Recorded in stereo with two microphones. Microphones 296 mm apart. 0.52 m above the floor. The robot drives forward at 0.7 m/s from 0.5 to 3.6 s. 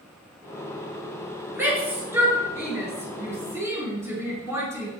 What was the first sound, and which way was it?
A shout, 5° right (ahead or behind).